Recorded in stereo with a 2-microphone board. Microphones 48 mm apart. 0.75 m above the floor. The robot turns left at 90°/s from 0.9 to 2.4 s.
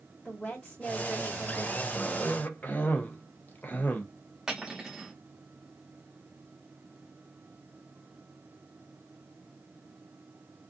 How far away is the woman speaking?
About 1.3 m.